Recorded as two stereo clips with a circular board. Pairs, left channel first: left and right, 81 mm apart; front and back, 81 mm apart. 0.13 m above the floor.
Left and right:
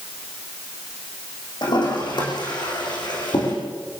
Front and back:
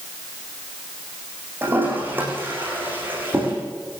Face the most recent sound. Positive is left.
turn(degrees=115)